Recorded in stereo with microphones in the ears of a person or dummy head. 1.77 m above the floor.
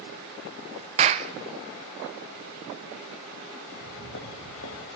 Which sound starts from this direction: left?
Footsteps, at 3.7 s.